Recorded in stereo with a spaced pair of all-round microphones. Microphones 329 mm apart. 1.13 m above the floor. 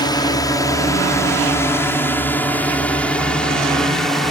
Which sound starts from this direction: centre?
A drone, at 0.0 s.